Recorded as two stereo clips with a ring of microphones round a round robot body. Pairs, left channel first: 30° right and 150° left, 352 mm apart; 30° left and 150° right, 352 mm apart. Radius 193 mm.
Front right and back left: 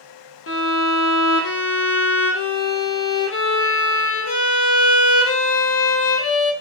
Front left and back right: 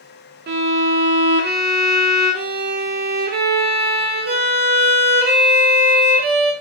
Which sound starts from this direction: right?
A violin, at 0.5 s.